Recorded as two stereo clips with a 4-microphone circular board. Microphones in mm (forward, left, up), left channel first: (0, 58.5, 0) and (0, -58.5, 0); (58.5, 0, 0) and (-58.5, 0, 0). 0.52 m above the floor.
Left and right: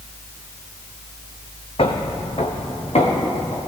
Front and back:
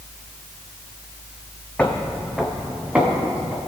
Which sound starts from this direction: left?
Footsteps, at 1.8 s.